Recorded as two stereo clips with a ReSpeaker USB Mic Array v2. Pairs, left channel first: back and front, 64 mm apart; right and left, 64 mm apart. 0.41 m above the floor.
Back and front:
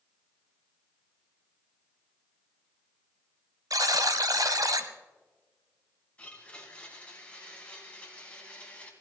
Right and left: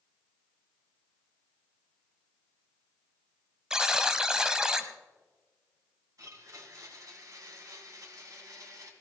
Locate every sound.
3.7 s a buzzer: 10° left, 1.0 m
6.2 s a blender: 110° left, 3 m